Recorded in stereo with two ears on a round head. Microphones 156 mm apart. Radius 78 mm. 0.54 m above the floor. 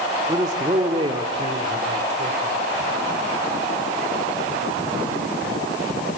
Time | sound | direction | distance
0.3 | a man speaking | 20° right (ahead or behind) | 1.5 m